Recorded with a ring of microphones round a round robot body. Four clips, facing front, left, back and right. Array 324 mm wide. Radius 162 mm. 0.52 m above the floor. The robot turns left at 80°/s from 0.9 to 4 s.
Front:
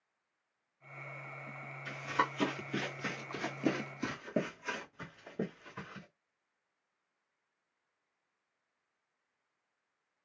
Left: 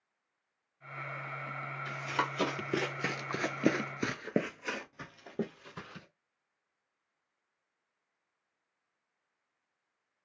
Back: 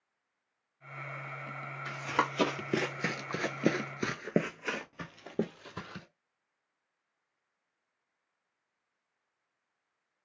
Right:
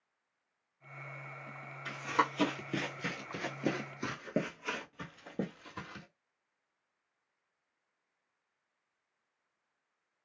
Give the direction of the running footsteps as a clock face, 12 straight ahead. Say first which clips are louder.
Right 3 dB, back 2 dB; 5 o'clock.